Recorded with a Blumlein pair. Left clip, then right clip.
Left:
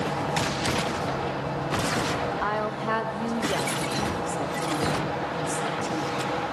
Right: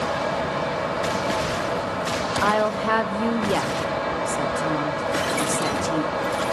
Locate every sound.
0.0 s a fan: 55° right, 2.5 m
2.4 s a woman speaking: 20° right, 0.6 m